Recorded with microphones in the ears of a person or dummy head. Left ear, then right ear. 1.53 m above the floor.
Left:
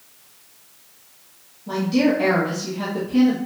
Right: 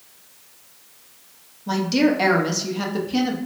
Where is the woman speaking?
50° right (ahead or behind), 0.7 m.